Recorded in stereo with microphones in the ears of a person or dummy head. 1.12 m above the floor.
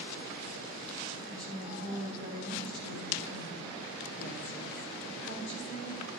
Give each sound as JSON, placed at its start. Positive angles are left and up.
{"t": 1.3, "sound": "a woman speaking", "side_deg": 70, "distance_m": 3.5}